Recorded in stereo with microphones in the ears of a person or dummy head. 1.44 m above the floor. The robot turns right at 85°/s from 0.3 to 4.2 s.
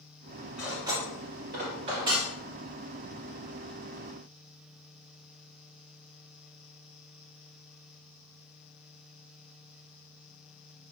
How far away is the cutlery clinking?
About 0.6 m.